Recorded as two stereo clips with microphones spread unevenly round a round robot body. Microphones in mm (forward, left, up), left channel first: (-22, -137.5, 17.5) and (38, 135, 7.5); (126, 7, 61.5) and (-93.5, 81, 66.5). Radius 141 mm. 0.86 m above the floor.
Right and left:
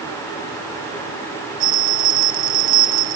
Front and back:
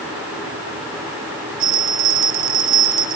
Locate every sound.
1.6 s a bell: 125° left, 1.7 m